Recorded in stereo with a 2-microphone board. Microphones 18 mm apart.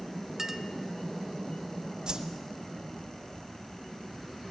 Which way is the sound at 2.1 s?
50° right (ahead or behind).